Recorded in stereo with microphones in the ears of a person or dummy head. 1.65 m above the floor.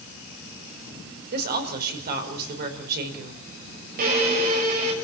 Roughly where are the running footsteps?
I don't hear running footsteps.